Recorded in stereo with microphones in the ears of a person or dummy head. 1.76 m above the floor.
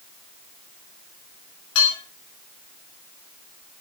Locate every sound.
1.8 s dishes clattering: 75° left (ahead or behind), 7.5 m